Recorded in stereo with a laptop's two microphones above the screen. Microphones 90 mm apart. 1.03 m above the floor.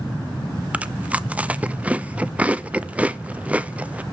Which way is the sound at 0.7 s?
15° right (ahead or behind).